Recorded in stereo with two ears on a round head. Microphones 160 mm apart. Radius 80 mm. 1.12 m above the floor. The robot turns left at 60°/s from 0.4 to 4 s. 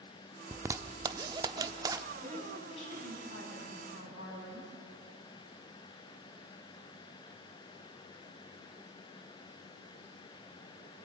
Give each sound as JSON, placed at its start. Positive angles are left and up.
{"t": 0.5, "sound": "a zipper", "side_deg": -15, "distance_m": 0.7}
{"t": 2.2, "sound": "a woman speaking", "azimuth_deg": 180, "distance_m": 6.5}